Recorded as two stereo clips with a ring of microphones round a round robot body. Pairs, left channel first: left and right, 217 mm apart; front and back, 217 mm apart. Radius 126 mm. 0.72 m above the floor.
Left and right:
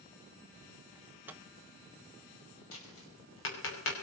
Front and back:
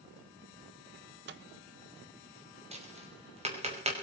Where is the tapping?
120° left, 5.5 m.